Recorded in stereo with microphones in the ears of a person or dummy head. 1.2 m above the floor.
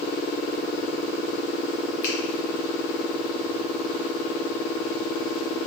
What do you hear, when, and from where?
2.0 s a finger snap: 15° left (ahead or behind), 1.2 m